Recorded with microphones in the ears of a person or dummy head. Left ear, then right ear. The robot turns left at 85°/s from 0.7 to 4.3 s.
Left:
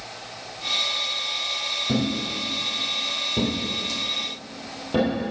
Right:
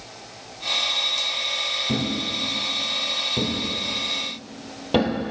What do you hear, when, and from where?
1.9 s a thud: 25° left (ahead or behind), 2 m; by 5.2 s 45° right (ahead or behind), 2 m